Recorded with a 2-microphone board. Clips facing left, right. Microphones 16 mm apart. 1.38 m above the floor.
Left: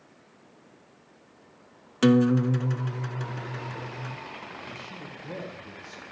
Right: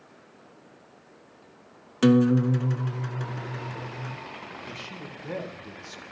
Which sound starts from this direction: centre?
A guitar, at 2.0 s.